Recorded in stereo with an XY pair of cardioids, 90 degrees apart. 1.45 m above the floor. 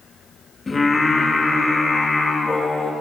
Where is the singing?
30° left, 3.5 m.